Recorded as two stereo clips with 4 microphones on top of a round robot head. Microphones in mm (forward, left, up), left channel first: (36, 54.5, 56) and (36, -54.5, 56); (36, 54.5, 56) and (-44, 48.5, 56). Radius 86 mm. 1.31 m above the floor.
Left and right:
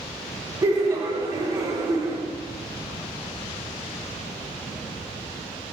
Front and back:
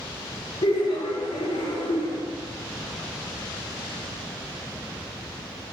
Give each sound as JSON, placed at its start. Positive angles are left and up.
{"t": 0.6, "sound": "laughter", "azimuth_deg": -30, "distance_m": 1.4}